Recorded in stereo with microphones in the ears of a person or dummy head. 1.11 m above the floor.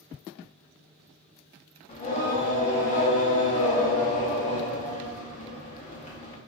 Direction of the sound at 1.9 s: 40° left (ahead or behind).